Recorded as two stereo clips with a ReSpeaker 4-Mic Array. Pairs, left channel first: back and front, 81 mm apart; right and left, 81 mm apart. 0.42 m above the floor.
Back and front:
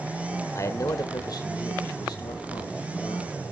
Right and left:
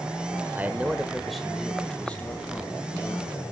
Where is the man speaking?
150° left, 1.2 m; by 3.4 s 155° right, 3 m.